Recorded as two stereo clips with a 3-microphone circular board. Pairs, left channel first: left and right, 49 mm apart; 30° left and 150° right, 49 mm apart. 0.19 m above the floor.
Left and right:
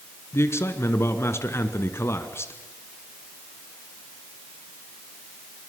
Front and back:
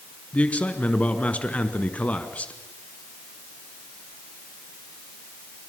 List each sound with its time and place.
0.3 s a man speaking: 85° left, 2 m